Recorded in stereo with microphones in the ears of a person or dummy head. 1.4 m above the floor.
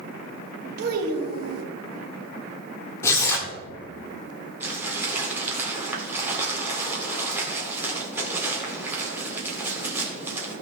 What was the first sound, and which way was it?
A child speaking, 55° right (ahead or behind).